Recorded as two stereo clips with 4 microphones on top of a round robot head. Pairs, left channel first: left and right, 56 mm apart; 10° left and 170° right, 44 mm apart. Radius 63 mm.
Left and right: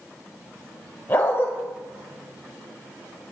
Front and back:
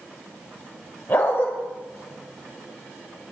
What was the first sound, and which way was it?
A dog barking, 45° left.